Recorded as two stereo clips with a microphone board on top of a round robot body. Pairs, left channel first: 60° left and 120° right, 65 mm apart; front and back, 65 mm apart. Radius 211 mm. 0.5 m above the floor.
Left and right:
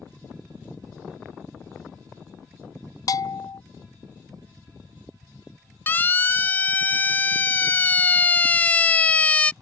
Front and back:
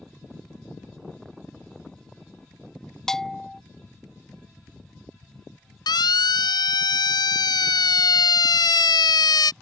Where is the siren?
Straight ahead; by 9.5 s 10° right.